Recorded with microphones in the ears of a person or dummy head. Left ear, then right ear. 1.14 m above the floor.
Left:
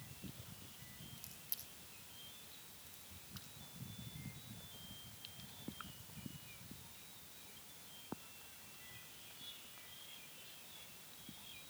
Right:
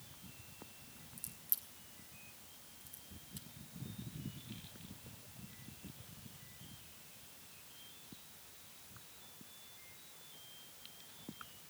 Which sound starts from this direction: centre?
A crack, at 1.2 s.